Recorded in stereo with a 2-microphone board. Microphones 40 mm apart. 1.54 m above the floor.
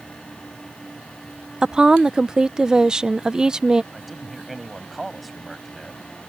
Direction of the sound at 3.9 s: Centre (ahead or behind).